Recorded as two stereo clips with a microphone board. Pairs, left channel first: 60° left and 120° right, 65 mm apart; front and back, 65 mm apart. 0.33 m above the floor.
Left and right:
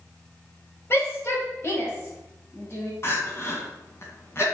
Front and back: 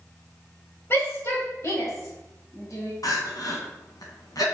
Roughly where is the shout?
Ahead left.